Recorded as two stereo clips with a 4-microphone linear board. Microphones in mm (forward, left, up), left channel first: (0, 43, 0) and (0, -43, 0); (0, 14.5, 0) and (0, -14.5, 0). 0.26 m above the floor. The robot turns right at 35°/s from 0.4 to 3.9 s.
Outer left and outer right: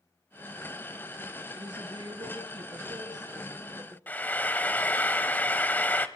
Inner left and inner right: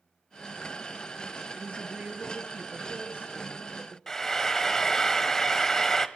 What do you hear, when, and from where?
1.6 s a woman speaking: 115° right, 5 m; by 4.0 s 35° right, 5 m
4.1 s frying: 20° left (ahead or behind), 1.1 m